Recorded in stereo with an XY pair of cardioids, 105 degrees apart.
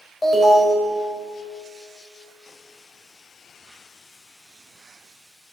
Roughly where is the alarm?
Ahead.